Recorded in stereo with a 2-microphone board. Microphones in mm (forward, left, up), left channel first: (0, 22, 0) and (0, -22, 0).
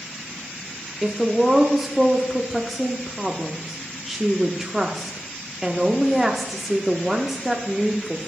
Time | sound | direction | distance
1.0 | a woman speaking | 5° right (ahead or behind) | 0.9 m